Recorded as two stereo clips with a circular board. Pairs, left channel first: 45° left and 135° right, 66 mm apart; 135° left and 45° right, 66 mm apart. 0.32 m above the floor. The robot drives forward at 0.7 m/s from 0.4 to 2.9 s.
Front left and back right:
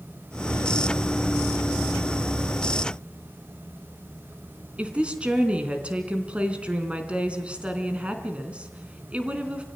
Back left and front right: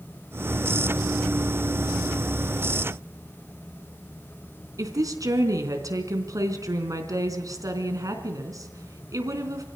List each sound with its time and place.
4.8 s a woman speaking: 65° right, 3.5 m